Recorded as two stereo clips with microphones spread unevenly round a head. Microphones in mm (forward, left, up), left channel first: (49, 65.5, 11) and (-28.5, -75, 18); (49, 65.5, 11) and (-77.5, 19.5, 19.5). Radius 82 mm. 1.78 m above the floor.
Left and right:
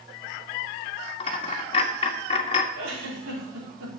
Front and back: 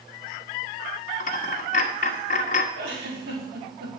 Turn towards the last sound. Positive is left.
turn(degrees=-125)